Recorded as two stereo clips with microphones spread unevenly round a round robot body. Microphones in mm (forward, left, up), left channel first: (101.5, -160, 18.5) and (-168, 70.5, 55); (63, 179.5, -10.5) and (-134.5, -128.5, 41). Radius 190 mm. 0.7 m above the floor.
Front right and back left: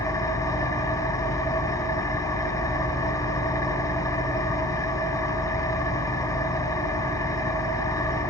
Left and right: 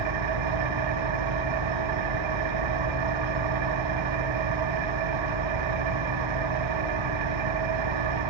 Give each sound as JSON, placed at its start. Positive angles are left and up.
{"t": 0.0, "sound": "an engine running", "azimuth_deg": -125, "distance_m": 2.0}